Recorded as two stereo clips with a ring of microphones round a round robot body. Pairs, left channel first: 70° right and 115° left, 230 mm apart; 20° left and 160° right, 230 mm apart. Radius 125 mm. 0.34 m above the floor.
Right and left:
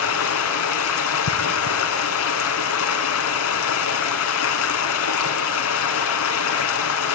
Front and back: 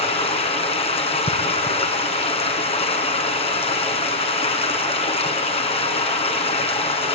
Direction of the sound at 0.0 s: 45° right.